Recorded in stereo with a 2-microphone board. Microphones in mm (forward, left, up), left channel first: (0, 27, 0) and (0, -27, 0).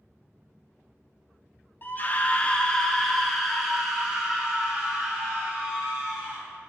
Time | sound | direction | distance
1.8 | a scream | 40° left (ahead or behind) | 1.0 m